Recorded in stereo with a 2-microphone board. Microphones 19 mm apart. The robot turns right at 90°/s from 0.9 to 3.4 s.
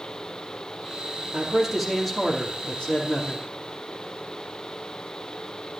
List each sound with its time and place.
1.3 s a man speaking: 50° right, 4 m; by 3.5 s 135° left, 4 m